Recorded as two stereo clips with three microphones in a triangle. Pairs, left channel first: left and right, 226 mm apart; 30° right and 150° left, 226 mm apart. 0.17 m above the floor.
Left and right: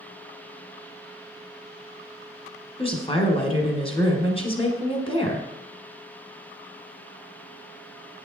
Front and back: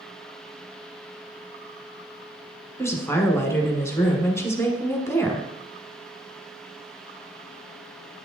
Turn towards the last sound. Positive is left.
turn(degrees=40)